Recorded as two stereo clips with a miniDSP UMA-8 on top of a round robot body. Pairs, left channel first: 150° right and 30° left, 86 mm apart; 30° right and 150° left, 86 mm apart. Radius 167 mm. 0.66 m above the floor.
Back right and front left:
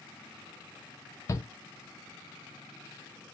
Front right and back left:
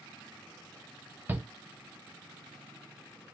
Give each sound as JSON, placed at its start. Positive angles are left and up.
{"t": 1.3, "sound": "a shout", "azimuth_deg": -160, "distance_m": 0.7}